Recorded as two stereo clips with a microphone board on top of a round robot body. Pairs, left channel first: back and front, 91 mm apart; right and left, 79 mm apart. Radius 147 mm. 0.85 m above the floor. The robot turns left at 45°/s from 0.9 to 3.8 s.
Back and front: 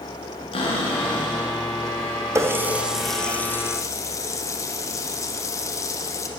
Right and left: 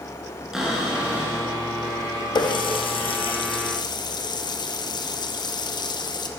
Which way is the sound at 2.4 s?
60° right.